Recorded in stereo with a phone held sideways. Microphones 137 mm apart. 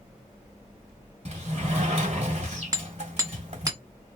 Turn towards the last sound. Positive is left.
turn(degrees=-25)  # may be behind; listen again after turning